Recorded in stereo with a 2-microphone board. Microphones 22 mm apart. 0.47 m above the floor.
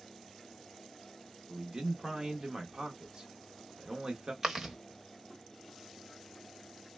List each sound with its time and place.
1.5 s a man speaking: 30° right (ahead or behind), 0.8 m
4.4 s chewing: 20° right (ahead or behind), 0.7 m